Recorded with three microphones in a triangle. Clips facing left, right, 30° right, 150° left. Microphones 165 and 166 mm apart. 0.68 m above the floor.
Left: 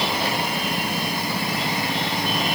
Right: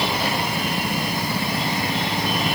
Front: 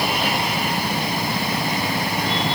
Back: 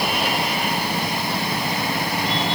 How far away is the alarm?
No alarm in this recording.